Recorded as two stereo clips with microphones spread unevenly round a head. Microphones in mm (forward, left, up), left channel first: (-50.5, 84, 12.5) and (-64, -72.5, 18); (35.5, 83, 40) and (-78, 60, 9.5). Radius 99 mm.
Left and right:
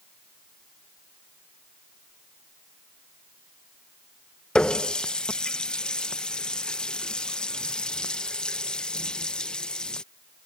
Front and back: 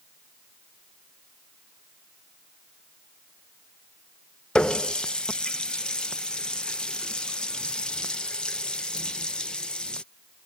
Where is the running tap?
5° left.